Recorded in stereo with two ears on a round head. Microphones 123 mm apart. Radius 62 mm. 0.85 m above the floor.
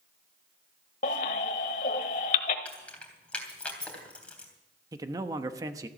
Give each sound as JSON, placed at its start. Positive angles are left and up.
{"t": 1.0, "sound": "a baby crying", "side_deg": 60, "distance_m": 1.2}
{"t": 2.6, "sound": "keys jangling", "side_deg": 10, "distance_m": 3.0}
{"t": 4.9, "sound": "a man speaking", "side_deg": -25, "distance_m": 1.0}